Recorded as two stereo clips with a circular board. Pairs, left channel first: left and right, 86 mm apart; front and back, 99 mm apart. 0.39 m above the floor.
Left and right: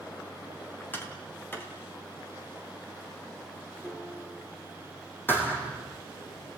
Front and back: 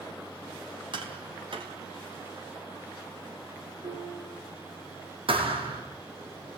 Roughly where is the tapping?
Behind left.